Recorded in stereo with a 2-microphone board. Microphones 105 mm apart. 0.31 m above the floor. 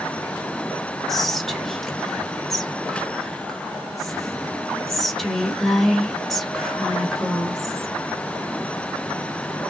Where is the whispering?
Centre (ahead or behind), 0.9 m.